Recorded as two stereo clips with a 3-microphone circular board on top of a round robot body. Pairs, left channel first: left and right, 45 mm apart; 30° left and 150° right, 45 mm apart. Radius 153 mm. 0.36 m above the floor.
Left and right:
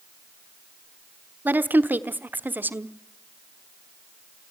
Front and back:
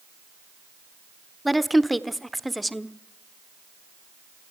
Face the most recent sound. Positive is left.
turn(degrees=-60)